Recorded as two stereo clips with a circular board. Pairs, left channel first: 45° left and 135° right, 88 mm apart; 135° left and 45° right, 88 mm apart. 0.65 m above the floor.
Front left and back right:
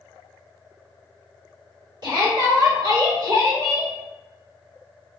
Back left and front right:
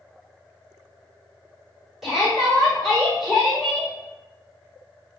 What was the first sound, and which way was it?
A shout, 135° right.